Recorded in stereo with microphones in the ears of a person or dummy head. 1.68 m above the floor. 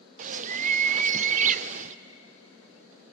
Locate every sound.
0.2 s a bird: 45° right (ahead or behind), 0.5 m